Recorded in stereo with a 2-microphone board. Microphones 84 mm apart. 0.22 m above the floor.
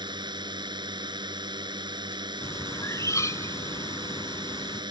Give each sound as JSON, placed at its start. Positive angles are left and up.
{"t": 0.0, "sound": "a drone", "side_deg": -65}
{"t": 2.4, "sound": "a bird", "side_deg": 40}